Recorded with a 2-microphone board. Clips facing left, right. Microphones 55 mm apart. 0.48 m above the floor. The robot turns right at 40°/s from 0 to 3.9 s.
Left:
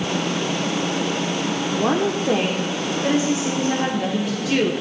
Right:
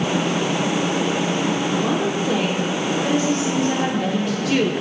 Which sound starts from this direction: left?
A woman speaking, at 1.8 s.